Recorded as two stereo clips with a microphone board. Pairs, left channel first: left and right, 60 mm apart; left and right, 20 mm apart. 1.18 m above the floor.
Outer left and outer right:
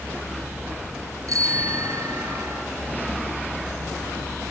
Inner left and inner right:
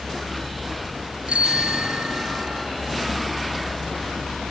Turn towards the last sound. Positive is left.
turn(degrees=-65)  # may be behind; listen again after turning